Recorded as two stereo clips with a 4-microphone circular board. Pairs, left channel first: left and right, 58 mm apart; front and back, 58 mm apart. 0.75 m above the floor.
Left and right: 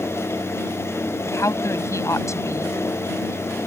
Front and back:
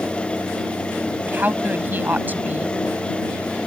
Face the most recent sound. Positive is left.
turn(degrees=120)